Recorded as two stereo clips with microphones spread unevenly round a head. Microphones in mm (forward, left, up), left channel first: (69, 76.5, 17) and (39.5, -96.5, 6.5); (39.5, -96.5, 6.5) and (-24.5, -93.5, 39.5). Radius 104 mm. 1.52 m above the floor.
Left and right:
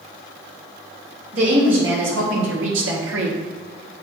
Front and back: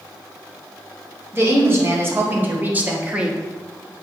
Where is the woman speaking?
135° right, 3 m; by 3.4 s 105° right, 1.3 m.